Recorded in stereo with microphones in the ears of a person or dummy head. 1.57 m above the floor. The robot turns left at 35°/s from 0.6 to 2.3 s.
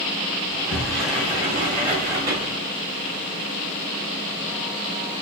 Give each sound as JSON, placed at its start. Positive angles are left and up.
{"t": 0.5, "sound": "a sliding door", "azimuth_deg": 20, "distance_m": 1.4}